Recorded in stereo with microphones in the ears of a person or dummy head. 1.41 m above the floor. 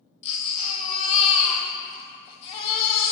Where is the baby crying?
35° left (ahead or behind), 1.6 m.